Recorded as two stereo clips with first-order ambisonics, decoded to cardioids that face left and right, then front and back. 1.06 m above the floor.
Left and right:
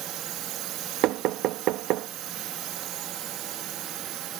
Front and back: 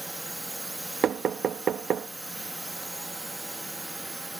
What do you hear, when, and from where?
0.0 s a drone: 100° right
1.0 s knocking: 125° right